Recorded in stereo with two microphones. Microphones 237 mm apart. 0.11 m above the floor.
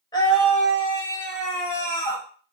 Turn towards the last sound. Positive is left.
turn(degrees=55)  # may be behind; listen again after turning